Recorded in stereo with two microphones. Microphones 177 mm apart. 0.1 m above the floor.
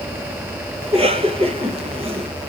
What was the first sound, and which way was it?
A cough, 35° right (ahead or behind).